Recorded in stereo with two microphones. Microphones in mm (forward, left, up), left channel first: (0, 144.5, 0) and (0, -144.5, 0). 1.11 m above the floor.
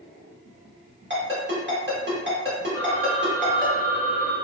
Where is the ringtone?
40° right (ahead or behind), 1.4 m.